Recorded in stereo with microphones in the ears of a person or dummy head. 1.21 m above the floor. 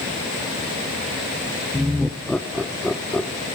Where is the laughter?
Centre (ahead or behind), 0.6 m.